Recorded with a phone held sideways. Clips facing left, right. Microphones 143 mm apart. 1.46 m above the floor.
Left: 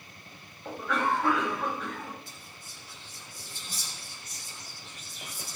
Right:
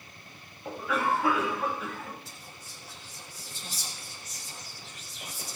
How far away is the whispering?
About 2.5 m.